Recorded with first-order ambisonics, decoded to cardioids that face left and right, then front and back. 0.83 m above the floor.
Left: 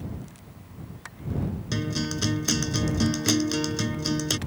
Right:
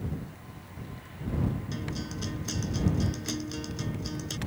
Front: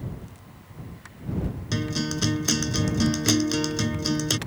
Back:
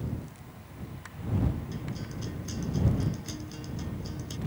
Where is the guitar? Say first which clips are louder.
Left 8 dB, front 12 dB; 35° left.